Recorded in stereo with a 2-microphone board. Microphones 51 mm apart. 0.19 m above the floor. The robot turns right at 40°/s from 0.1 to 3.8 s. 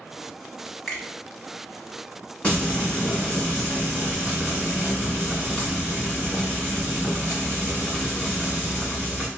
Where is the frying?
25° left (ahead or behind), 1.6 m; by 9.3 s 20° left (ahead or behind), 1.6 m.